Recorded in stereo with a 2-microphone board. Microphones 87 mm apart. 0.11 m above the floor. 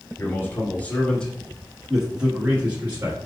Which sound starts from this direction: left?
A man speaking, at 0.2 s.